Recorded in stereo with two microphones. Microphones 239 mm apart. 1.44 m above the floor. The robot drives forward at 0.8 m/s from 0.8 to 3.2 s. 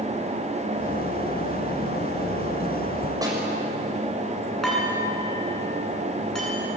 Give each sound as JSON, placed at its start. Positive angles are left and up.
{"t": 3.2, "sound": "a snare drum", "side_deg": -15, "distance_m": 6.5}
{"t": 4.6, "sound": "dishes clattering", "side_deg": 0, "distance_m": 9.5}